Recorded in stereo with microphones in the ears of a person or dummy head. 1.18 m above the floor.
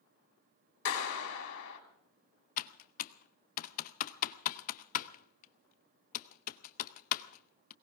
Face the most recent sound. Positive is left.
turn(degrees=45)  # may be behind; listen again after turning